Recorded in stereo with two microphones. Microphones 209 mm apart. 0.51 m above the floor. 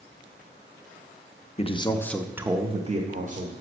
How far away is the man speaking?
About 0.8 m.